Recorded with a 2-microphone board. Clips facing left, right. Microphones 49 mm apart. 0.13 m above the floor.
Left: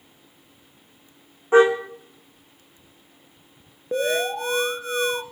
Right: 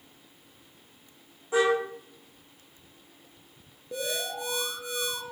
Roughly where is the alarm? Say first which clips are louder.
Left 10 dB; left.